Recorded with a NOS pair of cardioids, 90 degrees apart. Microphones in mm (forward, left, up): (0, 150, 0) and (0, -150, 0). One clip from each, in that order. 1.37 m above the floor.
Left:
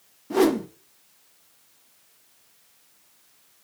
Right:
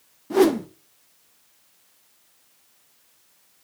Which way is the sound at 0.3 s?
10° right.